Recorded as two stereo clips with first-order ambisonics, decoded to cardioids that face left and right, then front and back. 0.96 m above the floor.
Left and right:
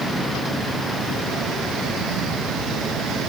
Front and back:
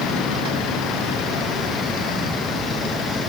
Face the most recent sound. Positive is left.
No sound to turn to.